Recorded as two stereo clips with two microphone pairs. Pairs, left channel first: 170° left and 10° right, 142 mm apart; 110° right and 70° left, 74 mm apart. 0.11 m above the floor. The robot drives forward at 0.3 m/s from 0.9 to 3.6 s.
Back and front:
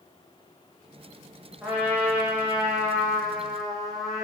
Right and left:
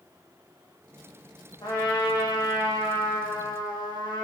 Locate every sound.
1.6 s a trumpet: 90° right, 4 m; by 4.2 s 100° right, 4 m